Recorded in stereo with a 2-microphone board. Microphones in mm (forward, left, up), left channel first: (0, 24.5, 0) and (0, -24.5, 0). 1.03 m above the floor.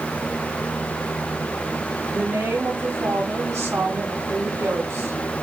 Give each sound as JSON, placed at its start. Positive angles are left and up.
{"t": 2.1, "sound": "a woman speaking", "side_deg": -65, "distance_m": 1.7}